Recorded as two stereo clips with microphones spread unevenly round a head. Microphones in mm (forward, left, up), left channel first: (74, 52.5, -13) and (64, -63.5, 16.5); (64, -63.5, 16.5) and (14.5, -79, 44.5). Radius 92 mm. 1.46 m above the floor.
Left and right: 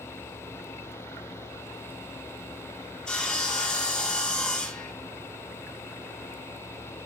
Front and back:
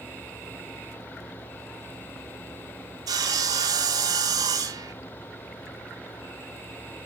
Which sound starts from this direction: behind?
Sawing, at 3.1 s.